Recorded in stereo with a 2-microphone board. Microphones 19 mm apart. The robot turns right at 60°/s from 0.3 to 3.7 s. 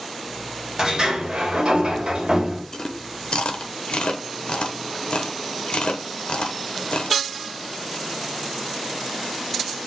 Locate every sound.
0.8 s a sliding door: 150° right, 1.5 m; by 2.6 s 40° right, 1.5 m
2.7 s chewing: 30° left (ahead or behind), 0.7 m; by 7.2 s 65° left (ahead or behind), 0.7 m